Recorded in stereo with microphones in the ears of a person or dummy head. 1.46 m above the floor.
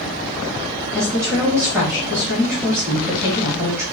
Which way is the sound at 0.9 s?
15° right (ahead or behind).